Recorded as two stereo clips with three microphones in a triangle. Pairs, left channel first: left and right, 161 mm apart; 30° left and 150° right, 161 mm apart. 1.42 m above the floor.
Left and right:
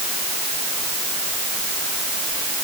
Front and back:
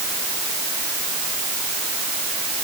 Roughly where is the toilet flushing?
I don't hear a toilet flushing.